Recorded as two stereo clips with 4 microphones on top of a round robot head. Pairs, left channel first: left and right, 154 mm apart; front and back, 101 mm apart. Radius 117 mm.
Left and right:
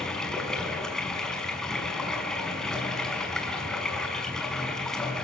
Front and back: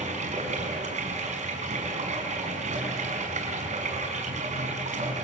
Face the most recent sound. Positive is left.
turn(degrees=175)